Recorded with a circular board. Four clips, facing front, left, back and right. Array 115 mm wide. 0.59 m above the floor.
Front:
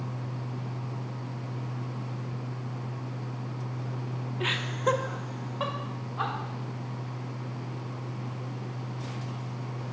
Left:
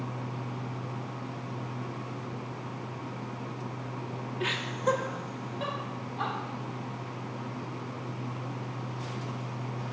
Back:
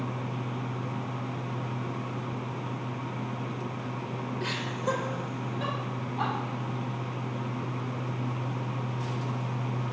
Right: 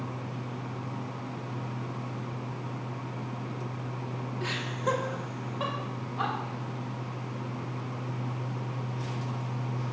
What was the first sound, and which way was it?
Laughter, 30° left.